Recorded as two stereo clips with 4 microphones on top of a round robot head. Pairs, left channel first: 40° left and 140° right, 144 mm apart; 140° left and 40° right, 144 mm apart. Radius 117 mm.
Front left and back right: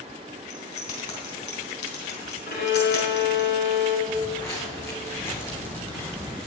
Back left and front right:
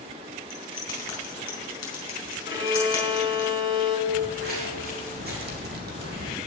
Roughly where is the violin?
Ahead left.